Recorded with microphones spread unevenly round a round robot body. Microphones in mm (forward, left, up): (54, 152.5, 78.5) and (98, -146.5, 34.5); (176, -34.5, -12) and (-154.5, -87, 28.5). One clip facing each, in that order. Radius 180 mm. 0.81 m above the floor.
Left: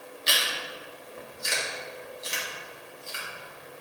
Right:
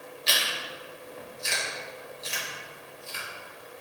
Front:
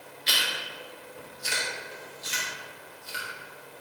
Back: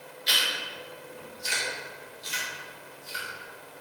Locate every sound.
0.3 s chewing: 25° left, 1.9 m